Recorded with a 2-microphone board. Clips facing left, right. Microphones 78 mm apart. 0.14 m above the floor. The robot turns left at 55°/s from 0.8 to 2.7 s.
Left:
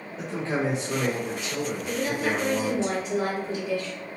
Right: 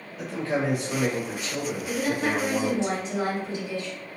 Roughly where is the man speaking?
Ahead left.